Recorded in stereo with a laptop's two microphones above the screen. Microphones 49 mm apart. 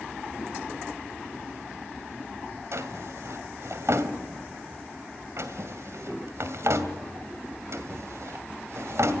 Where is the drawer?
65° right (ahead or behind), 2 m.